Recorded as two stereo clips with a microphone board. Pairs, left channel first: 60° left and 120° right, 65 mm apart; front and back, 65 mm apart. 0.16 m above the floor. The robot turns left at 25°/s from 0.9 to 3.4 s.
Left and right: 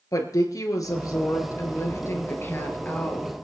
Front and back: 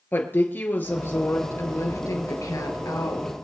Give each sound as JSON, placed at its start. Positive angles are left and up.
{"t": 0.1, "sound": "a woman speaking", "azimuth_deg": 55, "distance_m": 3.0}